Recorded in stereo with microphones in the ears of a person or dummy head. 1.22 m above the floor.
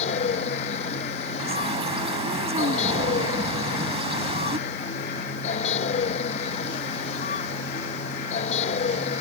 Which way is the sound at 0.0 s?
40° left (ahead or behind).